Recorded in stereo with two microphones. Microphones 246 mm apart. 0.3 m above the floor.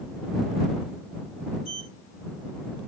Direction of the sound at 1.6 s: 55° right (ahead or behind).